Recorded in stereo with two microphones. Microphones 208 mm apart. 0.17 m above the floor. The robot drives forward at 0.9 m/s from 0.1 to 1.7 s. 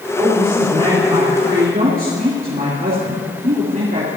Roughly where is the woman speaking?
Right.